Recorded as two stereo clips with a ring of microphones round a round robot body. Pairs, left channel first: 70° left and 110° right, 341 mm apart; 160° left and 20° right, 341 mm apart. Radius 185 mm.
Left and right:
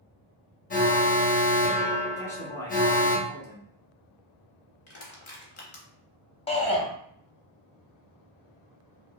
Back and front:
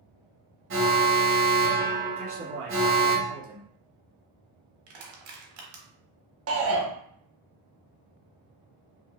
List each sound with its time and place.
0.7 s an alarm: 10° left, 0.7 m
2.2 s a man speaking: 10° right, 1.0 m
4.9 s crushing: 15° left, 0.6 m
6.5 s a shout: straight ahead, 0.8 m